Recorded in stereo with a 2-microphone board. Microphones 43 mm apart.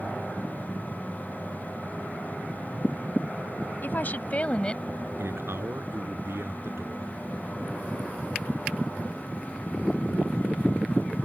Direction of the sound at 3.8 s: 50° left (ahead or behind).